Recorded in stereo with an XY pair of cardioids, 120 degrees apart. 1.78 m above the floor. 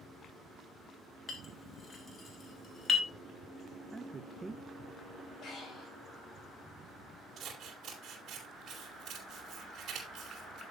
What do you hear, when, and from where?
1.3 s a clink: 35° left, 2.5 m
3.9 s a man speaking: 15° right, 0.5 m
5.4 s breathing: 55° left, 4 m
7.4 s scissors: 50° right, 4 m